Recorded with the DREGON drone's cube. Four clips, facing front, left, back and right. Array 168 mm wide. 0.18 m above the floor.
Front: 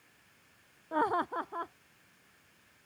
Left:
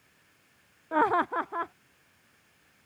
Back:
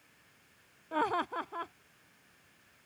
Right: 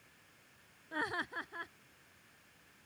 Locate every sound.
0.9 s laughter: 80° left